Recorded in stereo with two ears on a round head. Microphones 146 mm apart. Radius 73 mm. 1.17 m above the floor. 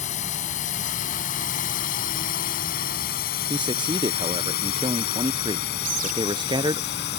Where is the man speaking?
25° right (ahead or behind).